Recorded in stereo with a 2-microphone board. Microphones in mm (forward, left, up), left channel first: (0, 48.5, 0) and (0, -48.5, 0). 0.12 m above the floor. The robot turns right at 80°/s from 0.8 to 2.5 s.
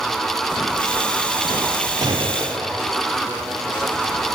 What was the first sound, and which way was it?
A gunshot, 130° right.